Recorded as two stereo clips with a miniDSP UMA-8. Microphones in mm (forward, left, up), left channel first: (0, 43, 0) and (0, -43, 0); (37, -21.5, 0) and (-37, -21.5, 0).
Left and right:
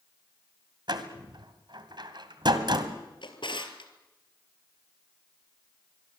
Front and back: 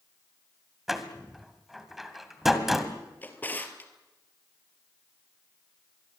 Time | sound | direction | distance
0.9 | a door slam | 95° right | 1.9 m
3.2 | a drawer | 65° left | 1.9 m